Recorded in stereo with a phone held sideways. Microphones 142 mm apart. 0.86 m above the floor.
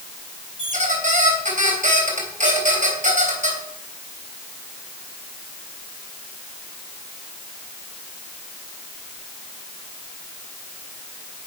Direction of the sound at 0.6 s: 60° right (ahead or behind).